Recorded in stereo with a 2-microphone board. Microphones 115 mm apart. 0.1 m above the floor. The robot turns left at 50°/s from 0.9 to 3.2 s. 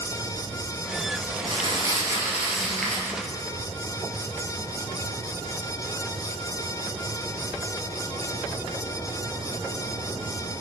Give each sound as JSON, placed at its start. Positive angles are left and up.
{"t": 1.4, "sound": "crumpling", "azimuth_deg": -120, "distance_m": 2.5}